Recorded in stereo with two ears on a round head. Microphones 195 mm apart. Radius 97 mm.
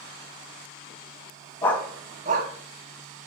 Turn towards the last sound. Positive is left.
turn(degrees=-75)  # may be behind; listen again after turning